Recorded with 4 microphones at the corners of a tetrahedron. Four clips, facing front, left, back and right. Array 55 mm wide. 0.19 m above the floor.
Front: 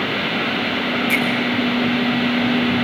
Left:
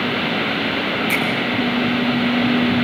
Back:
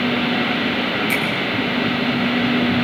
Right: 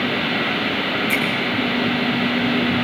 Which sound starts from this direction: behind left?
A finger snap, at 1.1 s.